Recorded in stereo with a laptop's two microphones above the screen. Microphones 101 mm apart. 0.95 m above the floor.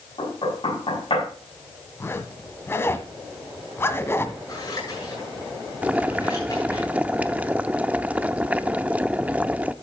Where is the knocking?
60° left (ahead or behind), 7.5 m.